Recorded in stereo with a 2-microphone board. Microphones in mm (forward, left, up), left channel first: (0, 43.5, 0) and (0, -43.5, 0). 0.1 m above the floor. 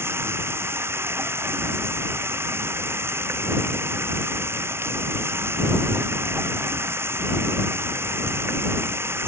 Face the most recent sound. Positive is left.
turn(degrees=-30)  # may be behind; listen again after turning